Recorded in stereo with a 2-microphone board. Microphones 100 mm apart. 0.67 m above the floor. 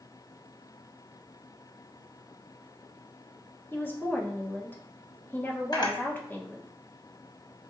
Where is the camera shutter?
40° left (ahead or behind), 1.2 m.